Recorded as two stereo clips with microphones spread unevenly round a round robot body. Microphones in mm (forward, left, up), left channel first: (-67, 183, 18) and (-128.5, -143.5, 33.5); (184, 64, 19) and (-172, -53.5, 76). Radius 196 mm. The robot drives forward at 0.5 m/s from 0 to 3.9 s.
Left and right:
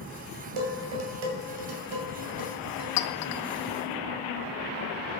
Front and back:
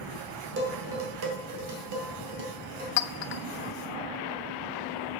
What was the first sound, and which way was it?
Dishes clattering, 95° right.